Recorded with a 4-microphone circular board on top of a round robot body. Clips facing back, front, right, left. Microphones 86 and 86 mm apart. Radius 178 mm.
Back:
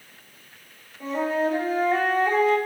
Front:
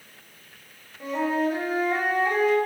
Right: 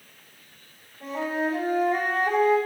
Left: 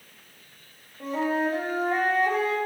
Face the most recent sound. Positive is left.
turn(degrees=80)